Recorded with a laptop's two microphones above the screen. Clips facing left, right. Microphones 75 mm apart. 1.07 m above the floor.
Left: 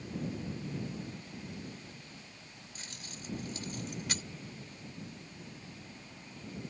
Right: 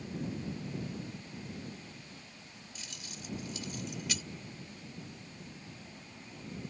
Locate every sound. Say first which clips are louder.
2.8 s keys jangling: even; 45° left (ahead or behind)